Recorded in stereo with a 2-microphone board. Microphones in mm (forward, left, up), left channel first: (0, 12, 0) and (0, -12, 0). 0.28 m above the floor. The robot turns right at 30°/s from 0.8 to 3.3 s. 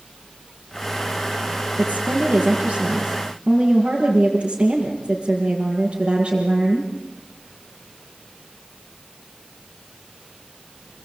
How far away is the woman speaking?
About 5.5 m.